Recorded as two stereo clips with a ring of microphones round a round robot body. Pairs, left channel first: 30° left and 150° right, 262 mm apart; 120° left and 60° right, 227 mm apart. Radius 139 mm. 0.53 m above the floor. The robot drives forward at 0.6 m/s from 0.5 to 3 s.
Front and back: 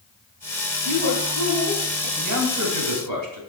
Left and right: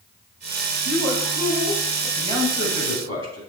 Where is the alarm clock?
I don't hear an alarm clock.